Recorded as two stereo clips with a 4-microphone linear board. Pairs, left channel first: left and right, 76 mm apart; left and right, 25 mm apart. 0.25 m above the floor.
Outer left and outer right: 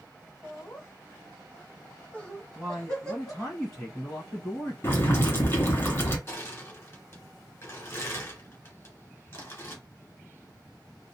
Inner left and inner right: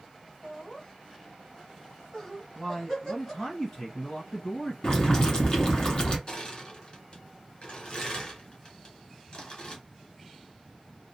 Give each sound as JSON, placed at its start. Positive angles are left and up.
{"t": 0.4, "sound": "laughter", "side_deg": 30, "distance_m": 1.5}
{"t": 2.5, "sound": "a man speaking", "side_deg": 0, "distance_m": 1.8}
{"t": 4.8, "sound": "boiling", "side_deg": 30, "distance_m": 2.0}
{"t": 6.3, "sound": "crushing", "side_deg": 30, "distance_m": 1.8}